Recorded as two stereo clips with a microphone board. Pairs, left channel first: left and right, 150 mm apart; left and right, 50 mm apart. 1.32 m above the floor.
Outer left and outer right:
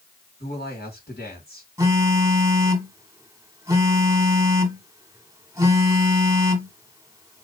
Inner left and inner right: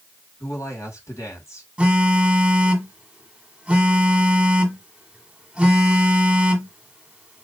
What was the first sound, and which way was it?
A woman speaking, 75° left (ahead or behind).